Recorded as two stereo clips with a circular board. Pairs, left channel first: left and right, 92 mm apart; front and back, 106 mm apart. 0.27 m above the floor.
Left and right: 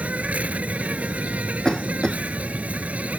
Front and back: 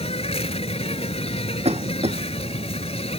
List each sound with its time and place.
0.0 s an insect: 15° right
1.6 s a cough: 175° left